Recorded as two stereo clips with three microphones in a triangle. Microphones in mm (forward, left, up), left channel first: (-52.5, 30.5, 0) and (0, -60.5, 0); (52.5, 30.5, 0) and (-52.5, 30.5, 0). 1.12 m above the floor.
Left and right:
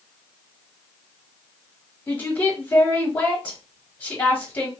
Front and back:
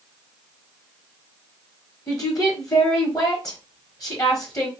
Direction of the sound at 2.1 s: 50° left.